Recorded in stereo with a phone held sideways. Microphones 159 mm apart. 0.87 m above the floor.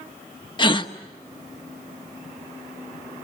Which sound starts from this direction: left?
A gasp, at 0.6 s.